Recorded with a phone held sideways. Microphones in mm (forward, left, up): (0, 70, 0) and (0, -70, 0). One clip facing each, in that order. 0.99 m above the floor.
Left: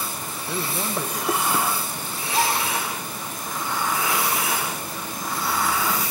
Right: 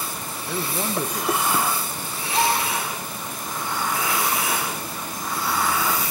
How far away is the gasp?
About 6.5 m.